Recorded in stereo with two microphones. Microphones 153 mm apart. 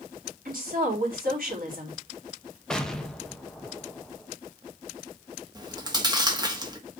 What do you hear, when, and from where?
0.5 s a woman speaking: 70° right (ahead or behind), 4 m
2.7 s an explosion: 5° left (ahead or behind), 1.0 m
5.5 s chewing: 25° right (ahead or behind), 1.3 m